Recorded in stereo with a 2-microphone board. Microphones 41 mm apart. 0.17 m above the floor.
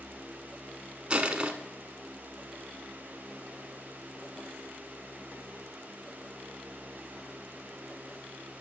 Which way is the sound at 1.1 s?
25° right (ahead or behind).